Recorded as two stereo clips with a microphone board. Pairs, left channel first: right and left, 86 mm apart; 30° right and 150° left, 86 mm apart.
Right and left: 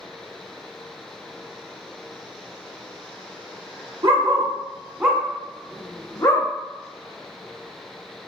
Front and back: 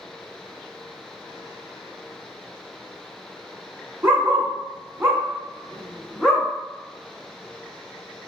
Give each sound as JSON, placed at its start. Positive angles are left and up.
{"t": 4.0, "sound": "a dog barking", "azimuth_deg": 95, "distance_m": 0.9}